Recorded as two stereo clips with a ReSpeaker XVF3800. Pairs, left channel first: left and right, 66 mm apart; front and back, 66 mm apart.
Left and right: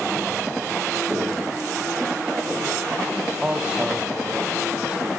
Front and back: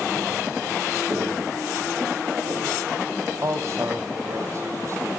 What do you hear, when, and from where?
1.1 s footsteps: 155° right, 9 m; by 2.9 s 160° right, 8 m
3.4 s a man speaking: 160° right, 2 m